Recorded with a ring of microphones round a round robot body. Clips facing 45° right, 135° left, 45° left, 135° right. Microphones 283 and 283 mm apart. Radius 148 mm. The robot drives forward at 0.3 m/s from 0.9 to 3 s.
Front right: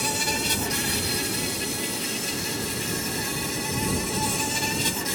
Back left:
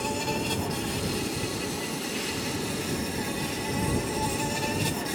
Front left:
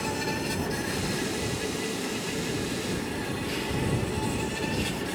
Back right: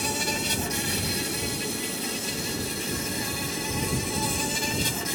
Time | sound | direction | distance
0.0 | an insect | 100° right | ?